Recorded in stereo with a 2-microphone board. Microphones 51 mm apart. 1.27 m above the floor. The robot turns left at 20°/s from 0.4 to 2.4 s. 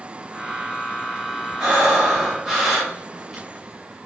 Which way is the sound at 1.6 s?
15° right (ahead or behind).